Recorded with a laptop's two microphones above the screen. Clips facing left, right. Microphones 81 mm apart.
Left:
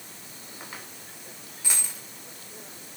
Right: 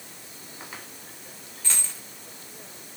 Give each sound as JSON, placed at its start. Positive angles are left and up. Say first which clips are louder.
{"t": 1.6, "sound": "a dropped coin", "louder": "even", "side_deg": 10, "distance_m": 1.7}